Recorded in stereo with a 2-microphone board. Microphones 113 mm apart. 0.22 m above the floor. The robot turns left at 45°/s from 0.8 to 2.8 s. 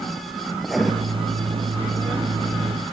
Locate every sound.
0.6 s writing: centre (ahead or behind), 2.5 m; by 0.9 s 5° right (ahead or behind), 2.5 m